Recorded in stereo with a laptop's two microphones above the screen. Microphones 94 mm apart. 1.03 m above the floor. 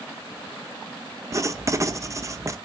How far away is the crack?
I don't hear a crack.